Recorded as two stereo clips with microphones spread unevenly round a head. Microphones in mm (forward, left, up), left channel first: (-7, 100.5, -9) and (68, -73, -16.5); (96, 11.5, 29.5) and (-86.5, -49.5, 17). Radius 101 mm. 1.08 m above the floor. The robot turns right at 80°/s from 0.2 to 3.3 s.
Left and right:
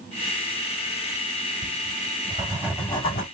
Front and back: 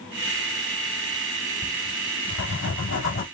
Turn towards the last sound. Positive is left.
turn(degrees=70)